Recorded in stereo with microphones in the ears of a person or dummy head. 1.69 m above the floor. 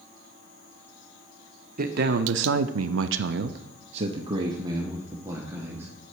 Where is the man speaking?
45° right (ahead or behind), 1.0 m; by 5.9 s 10° right (ahead or behind), 2 m.